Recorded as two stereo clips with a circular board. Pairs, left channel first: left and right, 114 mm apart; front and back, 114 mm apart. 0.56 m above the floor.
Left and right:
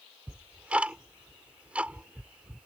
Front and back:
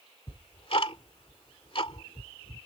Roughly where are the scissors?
No scissors in this recording.